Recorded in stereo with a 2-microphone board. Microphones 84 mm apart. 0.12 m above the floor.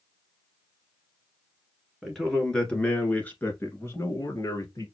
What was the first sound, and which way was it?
A man speaking, centre (ahead or behind).